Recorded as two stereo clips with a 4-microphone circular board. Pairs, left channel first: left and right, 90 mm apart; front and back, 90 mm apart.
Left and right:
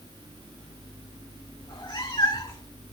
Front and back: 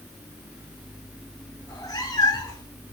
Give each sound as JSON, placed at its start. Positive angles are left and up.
{"t": 1.6, "sound": "a cat meowing", "azimuth_deg": 50, "distance_m": 1.7}